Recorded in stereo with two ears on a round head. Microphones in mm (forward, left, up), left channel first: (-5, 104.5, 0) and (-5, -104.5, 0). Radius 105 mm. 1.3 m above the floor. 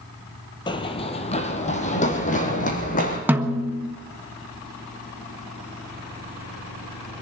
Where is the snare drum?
10° right (ahead or behind), 1.4 m.